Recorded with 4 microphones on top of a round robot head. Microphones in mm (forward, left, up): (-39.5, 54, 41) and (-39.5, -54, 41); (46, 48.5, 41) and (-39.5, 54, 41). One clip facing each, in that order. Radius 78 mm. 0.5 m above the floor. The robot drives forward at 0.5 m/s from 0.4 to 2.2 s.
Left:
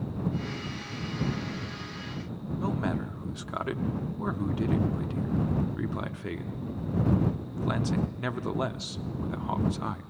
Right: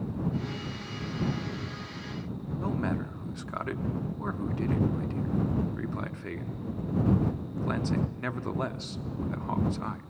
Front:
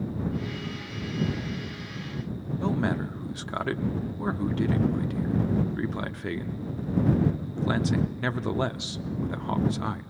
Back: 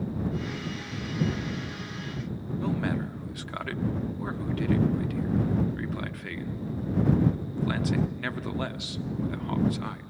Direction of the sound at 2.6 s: 20° left.